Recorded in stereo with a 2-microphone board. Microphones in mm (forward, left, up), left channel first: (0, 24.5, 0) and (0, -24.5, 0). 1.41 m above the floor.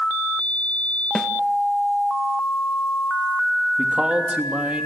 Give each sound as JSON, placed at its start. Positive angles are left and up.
{"t": 1.1, "sound": "a snare drum", "side_deg": 10, "distance_m": 1.3}
{"t": 3.8, "sound": "a man speaking", "side_deg": -25, "distance_m": 3.0}